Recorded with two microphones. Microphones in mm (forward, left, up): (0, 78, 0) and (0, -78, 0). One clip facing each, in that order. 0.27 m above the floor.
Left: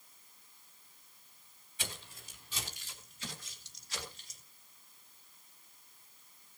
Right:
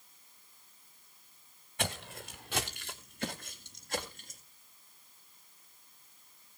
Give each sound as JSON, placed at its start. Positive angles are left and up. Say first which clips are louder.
{"t": 1.8, "sound": "footsteps", "louder": "right 10 dB", "side_deg": -75, "distance_m": 1.5}